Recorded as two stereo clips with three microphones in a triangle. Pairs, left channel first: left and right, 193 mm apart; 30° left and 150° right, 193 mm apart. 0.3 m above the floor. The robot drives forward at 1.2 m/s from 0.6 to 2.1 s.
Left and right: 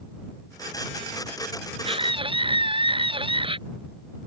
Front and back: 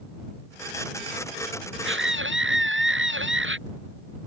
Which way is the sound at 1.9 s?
150° right.